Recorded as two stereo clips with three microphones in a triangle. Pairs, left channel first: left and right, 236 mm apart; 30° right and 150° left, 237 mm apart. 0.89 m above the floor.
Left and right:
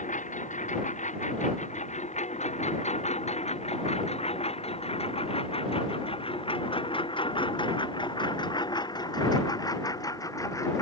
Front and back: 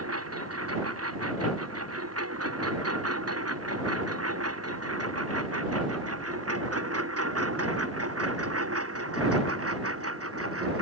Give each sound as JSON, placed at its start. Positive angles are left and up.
{"t": 0.0, "sound": "a lawn mower", "azimuth_deg": 145}